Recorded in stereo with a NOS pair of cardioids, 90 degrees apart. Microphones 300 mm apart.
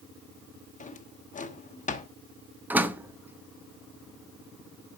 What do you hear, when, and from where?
0.8 s a drawer: 25° left, 1.2 m
2.7 s a door slam: 5° right, 0.9 m